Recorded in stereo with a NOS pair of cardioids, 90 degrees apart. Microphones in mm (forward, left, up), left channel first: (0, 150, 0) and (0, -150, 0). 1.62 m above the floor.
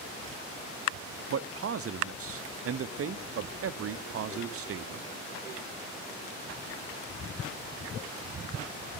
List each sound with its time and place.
1.3 s a man speaking: 50° right, 0.9 m